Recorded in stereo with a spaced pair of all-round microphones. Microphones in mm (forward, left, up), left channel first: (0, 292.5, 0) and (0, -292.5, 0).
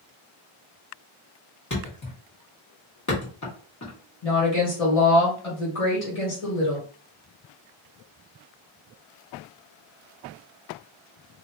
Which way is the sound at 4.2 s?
70° left (ahead or behind).